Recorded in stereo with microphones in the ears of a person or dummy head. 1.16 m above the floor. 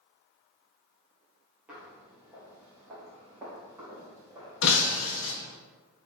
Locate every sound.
1.7 s footsteps: 5° right (ahead or behind), 1.6 m; by 5.0 s 15° right (ahead or behind), 3.5 m
4.6 s breaking glass: 70° left (ahead or behind), 0.9 m